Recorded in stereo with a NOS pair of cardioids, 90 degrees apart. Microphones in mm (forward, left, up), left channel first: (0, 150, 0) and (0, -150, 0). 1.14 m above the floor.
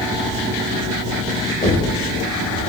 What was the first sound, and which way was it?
Knocking, 25° left.